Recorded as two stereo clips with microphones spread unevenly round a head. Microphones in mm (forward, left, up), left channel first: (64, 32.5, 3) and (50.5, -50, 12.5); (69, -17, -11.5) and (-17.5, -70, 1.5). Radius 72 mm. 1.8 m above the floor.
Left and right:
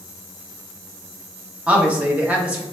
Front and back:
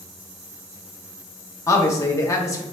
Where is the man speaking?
30° right, 0.9 m.